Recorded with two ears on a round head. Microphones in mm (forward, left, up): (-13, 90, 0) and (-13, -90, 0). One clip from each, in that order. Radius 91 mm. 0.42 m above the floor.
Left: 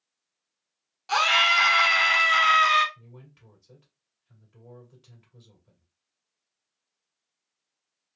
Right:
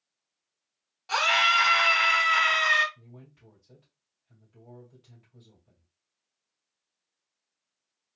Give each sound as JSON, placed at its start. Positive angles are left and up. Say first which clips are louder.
{"t": 1.1, "sound": "a scream", "louder": "left 2 dB", "side_deg": 15, "distance_m": 0.7}
{"t": 3.0, "sound": "a man speaking", "louder": "left 1 dB", "side_deg": 40, "distance_m": 2.0}